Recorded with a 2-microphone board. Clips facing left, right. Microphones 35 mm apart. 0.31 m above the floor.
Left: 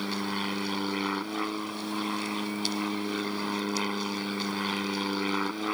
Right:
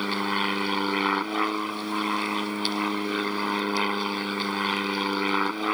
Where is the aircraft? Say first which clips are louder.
Right 5 dB; 25° right (ahead or behind); by 5.8 s 20° right (ahead or behind).